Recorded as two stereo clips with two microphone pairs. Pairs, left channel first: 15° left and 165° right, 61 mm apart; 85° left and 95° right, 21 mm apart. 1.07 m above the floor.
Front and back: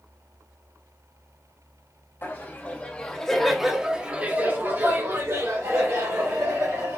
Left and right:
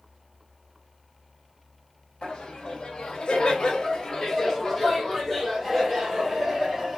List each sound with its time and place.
2.2 s laughter: 60° left, 1.2 m; by 7.0 s straight behind, 2 m